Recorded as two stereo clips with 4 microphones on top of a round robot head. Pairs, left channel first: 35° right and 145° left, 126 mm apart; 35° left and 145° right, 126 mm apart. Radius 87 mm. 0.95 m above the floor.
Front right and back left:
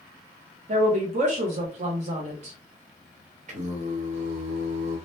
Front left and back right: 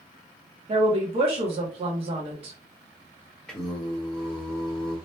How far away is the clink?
I don't hear a clink.